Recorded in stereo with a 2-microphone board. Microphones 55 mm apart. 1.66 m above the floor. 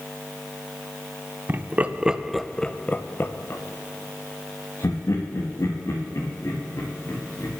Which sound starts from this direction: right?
Laughter, at 1.5 s.